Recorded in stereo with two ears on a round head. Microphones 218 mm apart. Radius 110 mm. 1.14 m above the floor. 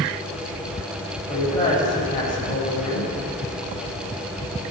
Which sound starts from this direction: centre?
A woman speaking, at 1.3 s.